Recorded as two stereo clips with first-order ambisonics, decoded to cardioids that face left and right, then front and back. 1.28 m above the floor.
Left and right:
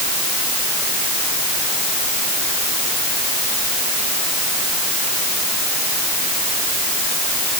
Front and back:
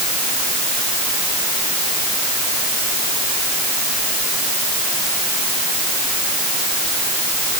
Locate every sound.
Only background noise.